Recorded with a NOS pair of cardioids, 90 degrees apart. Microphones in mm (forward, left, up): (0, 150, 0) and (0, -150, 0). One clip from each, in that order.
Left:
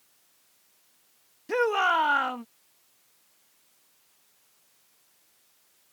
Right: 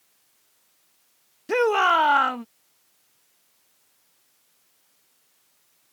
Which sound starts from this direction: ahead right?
A shout, at 1.5 s.